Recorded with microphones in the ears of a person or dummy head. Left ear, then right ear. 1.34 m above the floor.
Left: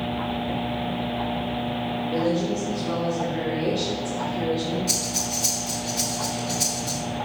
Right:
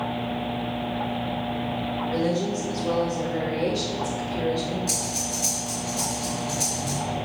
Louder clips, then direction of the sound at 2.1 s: Left 2 dB; 60° right (ahead or behind).